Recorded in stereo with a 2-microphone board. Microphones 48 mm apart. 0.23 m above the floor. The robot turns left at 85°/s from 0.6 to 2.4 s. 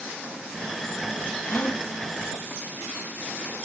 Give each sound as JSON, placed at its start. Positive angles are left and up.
{"t": 1.5, "sound": "a gasp", "azimuth_deg": 45, "distance_m": 1.2}